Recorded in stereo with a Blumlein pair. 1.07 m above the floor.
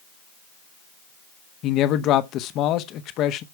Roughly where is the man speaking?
Ahead left.